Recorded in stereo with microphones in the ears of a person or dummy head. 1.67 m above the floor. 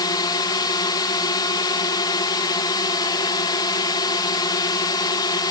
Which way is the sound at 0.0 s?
25° left (ahead or behind).